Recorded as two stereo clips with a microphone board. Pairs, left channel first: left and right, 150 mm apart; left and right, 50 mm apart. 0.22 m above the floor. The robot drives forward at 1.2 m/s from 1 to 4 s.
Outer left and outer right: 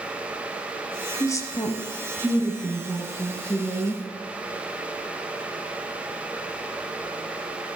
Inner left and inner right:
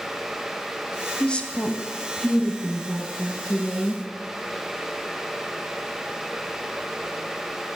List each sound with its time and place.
1.2 s a woman speaking: 20° left (ahead or behind), 1.0 m; by 4.0 s 5° left (ahead or behind), 3.5 m